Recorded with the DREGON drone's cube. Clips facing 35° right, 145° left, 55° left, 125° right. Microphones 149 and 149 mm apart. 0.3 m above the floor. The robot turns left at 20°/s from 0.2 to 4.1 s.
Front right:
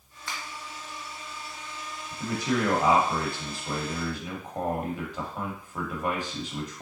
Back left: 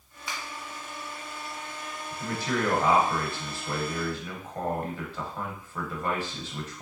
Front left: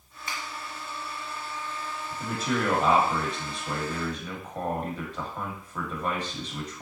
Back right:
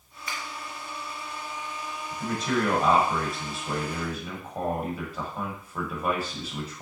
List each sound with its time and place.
0.3 s a finger snap: 70° left, 1.4 m
2.1 s a man speaking: 20° right, 0.9 m; by 6.8 s 60° right, 0.9 m